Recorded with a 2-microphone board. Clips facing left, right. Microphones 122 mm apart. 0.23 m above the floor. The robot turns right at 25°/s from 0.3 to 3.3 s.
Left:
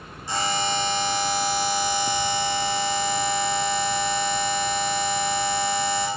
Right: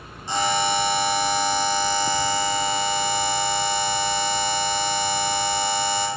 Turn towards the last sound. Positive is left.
turn(degrees=50)